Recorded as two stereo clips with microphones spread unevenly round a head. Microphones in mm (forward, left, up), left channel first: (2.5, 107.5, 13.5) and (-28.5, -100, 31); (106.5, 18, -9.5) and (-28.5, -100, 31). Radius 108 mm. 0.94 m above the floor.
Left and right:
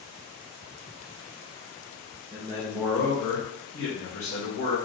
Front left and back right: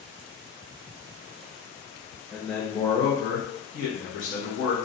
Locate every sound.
2.3 s a man speaking: 40° right, 0.9 m; by 4.7 s 60° left, 1.6 m